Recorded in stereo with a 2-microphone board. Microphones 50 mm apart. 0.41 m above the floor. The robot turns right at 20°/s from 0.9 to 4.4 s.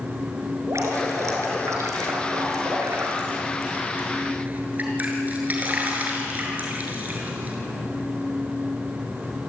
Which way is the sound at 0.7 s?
75° right (ahead or behind).